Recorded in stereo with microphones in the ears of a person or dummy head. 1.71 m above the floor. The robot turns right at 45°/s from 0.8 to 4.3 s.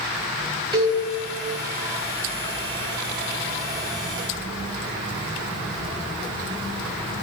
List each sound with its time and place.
0.7 s a cowbell: 25° right (ahead or behind), 1.4 m; by 1.0 s 35° right (ahead or behind), 1.4 m